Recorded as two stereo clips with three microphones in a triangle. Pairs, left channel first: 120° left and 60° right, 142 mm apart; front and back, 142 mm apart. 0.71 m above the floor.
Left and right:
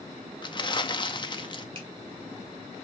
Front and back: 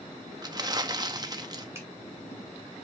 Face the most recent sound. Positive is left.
turn(degrees=-110)